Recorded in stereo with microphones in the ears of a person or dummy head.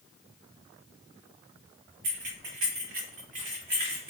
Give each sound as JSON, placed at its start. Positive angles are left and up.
{"t": 2.0, "sound": "keys jangling", "side_deg": -70, "distance_m": 1.2}